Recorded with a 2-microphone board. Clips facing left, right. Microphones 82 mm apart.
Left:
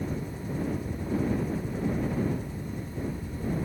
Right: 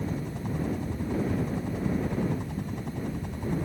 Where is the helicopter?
70° right (ahead or behind).